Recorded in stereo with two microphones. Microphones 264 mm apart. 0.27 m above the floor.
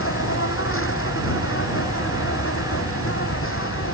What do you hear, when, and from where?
0.0 s an insect: 55° left (ahead or behind)